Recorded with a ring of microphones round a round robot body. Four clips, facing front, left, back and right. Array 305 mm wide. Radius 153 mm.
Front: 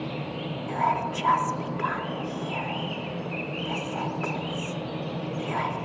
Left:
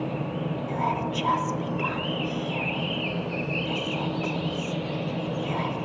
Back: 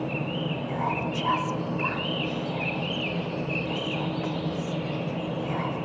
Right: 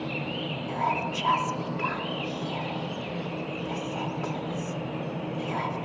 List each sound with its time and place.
0.7 s whispering: 20° left